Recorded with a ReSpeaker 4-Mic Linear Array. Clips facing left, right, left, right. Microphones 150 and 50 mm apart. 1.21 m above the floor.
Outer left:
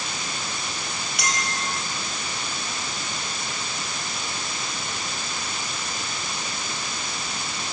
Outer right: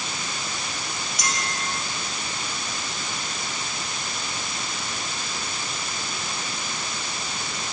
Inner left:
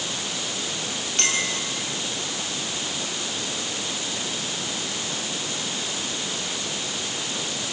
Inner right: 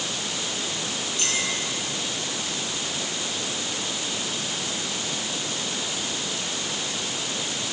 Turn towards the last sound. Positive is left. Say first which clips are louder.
# outer left 2 dB, inner left 4 dB
turn(degrees=70)  # may be behind; listen again after turning